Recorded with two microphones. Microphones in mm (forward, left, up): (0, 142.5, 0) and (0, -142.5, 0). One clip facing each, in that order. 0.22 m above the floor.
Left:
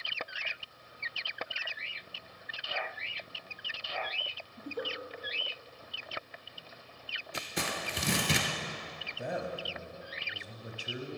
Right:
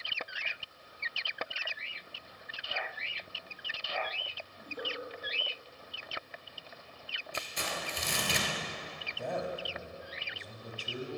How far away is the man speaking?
About 1.0 m.